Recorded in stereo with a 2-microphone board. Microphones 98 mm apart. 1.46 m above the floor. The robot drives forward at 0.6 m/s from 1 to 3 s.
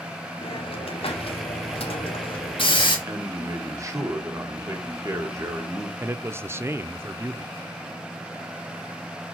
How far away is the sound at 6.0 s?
About 0.6 m.